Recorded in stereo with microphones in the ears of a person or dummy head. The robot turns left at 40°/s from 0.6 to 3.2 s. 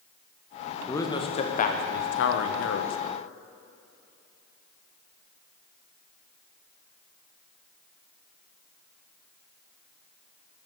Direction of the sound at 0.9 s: 170° left.